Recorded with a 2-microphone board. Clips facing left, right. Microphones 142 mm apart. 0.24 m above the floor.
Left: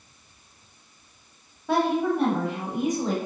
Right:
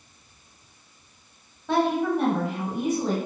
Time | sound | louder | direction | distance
1.7 | a woman speaking | even | 10° left (ahead or behind) | 1.0 m